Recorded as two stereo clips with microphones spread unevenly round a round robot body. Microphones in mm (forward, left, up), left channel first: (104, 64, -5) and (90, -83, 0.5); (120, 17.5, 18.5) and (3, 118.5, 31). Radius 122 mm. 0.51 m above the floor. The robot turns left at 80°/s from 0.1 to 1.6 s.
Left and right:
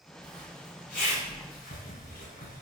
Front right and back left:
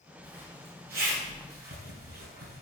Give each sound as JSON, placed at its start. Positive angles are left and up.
{"t": 0.2, "sound": "a zipper", "azimuth_deg": -125, "distance_m": 4.0}